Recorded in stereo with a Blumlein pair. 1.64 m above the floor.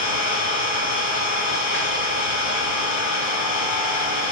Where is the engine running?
60° left, 2.5 m.